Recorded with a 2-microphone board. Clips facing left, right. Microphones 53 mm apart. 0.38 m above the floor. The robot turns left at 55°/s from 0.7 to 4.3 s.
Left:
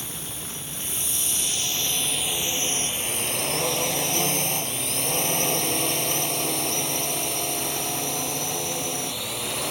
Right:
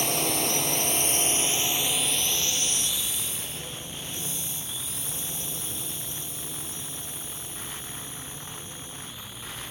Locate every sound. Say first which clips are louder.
0.0 s a drone: right 10 dB; 70° right (ahead or behind); by 9.7 s 80° left